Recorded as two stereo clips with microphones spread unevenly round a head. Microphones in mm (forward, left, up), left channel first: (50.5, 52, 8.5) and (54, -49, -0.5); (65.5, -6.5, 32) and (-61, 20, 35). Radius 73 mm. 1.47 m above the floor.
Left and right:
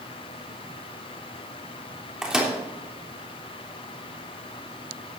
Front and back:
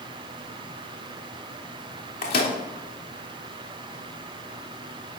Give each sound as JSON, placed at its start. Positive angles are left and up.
{"t": 2.2, "sound": "a microwave", "azimuth_deg": -5, "distance_m": 3.5}